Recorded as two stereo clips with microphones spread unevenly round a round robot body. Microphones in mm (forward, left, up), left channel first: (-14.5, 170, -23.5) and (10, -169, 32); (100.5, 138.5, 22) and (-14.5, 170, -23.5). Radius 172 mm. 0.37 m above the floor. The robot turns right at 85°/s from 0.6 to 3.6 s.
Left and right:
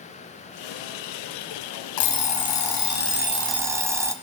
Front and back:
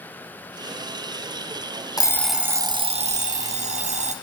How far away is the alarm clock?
About 0.8 m.